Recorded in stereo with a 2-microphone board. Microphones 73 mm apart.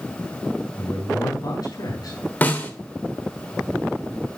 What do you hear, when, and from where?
0.8 s a man speaking: 55° left (ahead or behind), 4.5 m; by 2.2 s 60° left (ahead or behind), 3.5 m
2.4 s a snare drum: 25° left (ahead or behind), 1.2 m